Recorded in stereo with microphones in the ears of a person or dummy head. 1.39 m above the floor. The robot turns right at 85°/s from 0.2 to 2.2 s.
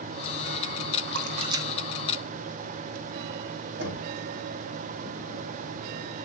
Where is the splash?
65° right (ahead or behind), 0.8 m; by 3.0 s 30° left (ahead or behind), 0.8 m.